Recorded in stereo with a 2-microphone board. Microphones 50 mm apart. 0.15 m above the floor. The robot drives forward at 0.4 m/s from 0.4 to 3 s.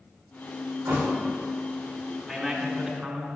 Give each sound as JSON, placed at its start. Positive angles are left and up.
{"t": 0.8, "sound": "a thud", "side_deg": -65, "distance_m": 3.5}
{"t": 2.3, "sound": "a man speaking", "side_deg": -20, "distance_m": 1.7}